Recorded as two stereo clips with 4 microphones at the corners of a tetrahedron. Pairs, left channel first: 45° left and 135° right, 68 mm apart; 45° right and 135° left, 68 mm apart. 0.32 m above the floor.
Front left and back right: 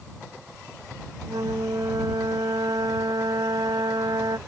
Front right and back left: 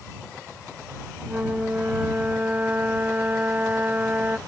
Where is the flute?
155° right.